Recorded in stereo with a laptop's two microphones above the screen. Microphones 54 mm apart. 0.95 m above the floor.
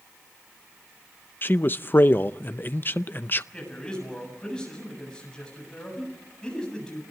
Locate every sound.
1.4 s a man speaking: 35° left (ahead or behind), 0.5 m
3.5 s a man speaking: 15° left (ahead or behind), 7.5 m